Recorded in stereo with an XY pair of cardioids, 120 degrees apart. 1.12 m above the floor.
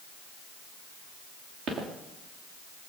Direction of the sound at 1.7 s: 65° right.